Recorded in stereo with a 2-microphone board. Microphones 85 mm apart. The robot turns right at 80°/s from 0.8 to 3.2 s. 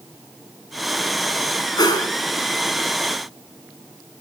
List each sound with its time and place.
1.8 s a whoosh: 55° left (ahead or behind), 1.8 m; by 2.1 s 50° left (ahead or behind), 1.8 m